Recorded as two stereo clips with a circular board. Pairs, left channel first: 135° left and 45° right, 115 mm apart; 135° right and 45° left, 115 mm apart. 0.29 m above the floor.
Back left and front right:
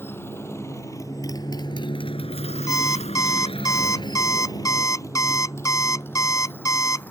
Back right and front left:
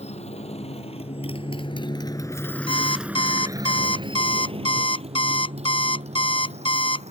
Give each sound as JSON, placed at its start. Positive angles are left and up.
{"t": 0.0, "sound": "a motorcycle", "azimuth_deg": -155}
{"t": 2.7, "sound": "an alarm clock", "azimuth_deg": -165}